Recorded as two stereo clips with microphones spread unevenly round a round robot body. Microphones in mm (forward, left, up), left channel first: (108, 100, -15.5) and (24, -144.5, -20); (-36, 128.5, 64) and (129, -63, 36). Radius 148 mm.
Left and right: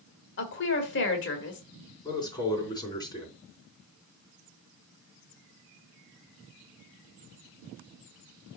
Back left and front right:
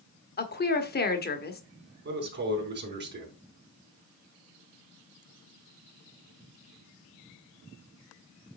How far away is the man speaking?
About 3.5 m.